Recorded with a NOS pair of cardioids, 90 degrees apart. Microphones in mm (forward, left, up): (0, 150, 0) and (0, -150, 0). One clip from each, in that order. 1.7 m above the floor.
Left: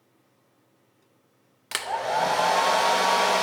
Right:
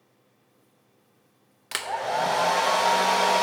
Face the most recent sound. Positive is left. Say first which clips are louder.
# left 1 dB
turn(degrees=5)